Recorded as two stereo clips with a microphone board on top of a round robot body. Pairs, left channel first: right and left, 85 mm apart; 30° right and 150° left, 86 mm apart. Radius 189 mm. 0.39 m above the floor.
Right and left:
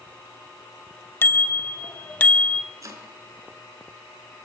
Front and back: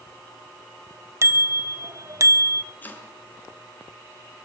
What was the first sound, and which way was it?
A bicycle bell, 155° right.